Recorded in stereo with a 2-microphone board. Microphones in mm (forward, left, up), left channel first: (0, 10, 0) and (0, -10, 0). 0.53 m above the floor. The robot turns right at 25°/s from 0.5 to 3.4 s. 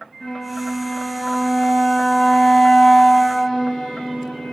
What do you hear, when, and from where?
0.2 s a flute: 30° left, 1.9 m; by 4.5 s 100° left, 1.9 m